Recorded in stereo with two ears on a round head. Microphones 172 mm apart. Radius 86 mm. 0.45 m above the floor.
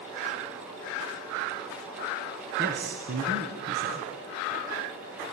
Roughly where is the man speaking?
Right.